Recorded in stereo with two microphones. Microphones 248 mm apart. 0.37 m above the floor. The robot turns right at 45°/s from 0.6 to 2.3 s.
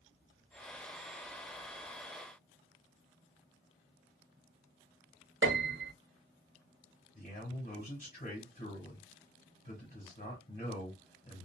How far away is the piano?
About 0.7 m.